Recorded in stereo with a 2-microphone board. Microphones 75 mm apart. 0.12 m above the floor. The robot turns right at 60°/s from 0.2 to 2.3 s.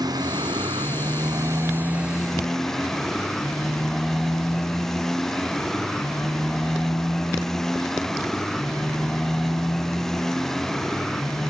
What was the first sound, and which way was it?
A motorcycle, 120° right.